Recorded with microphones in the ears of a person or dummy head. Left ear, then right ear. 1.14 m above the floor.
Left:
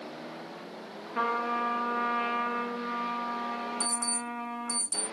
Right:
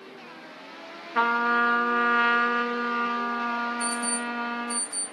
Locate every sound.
1.1 s a trumpet: 60° right (ahead or behind), 0.6 m
3.8 s an alarm clock: 60° left (ahead or behind), 4.5 m